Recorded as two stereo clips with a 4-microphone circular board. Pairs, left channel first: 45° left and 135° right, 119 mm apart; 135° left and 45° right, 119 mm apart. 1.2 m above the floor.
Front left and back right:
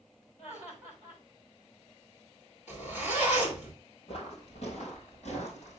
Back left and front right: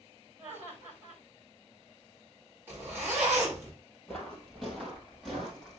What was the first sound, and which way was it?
Laughter, 25° left.